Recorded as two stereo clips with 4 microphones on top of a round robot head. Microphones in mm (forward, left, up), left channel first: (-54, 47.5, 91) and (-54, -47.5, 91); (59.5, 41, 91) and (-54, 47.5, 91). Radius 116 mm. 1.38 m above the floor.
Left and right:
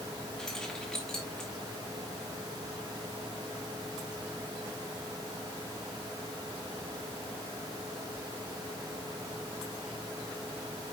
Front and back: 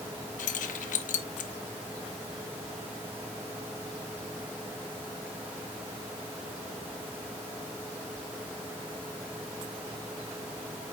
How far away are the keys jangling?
About 0.6 m.